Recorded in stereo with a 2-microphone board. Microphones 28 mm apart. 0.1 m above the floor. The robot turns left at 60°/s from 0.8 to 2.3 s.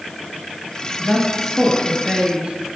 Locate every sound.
1.0 s a woman speaking: 20° left (ahead or behind), 1.8 m; by 2.8 s 30° right (ahead or behind), 1.8 m